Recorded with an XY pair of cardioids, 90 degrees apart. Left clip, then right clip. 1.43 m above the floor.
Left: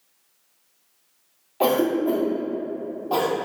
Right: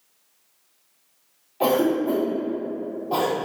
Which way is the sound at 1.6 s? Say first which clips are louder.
Even; 45° left.